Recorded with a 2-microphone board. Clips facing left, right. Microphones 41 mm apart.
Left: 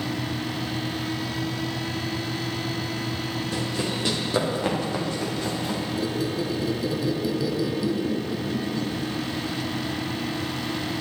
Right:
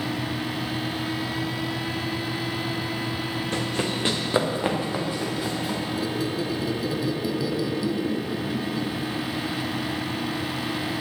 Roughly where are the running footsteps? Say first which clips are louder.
Right 2 dB; right.